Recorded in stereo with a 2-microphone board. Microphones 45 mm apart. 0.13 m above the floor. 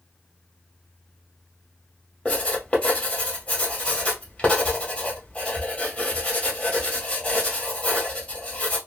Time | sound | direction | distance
2.2 | writing | 25° left (ahead or behind) | 1.4 m